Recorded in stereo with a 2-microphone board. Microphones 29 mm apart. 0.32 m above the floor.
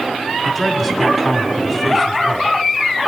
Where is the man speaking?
10° right (ahead or behind), 2 m.